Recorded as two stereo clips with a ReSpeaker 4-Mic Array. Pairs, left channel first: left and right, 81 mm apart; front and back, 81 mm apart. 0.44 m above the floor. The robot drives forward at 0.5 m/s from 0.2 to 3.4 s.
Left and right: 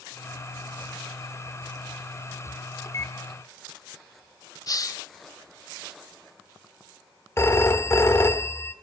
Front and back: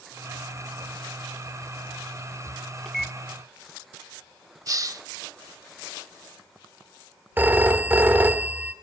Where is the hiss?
135° left, 0.5 m.